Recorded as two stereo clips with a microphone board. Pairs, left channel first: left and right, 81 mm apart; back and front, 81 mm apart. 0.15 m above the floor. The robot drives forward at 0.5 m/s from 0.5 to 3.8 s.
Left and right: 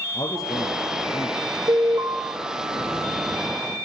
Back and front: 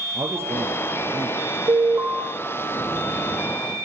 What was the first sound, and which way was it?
A man speaking, 55° left.